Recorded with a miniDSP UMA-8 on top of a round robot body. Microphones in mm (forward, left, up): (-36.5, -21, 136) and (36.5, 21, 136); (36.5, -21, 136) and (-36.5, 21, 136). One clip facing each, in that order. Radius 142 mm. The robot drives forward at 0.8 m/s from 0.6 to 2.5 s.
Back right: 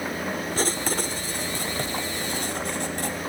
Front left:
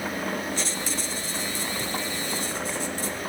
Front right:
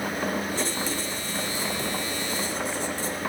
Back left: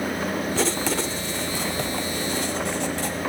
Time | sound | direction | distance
0.6 | writing | 160° left | 0.6 m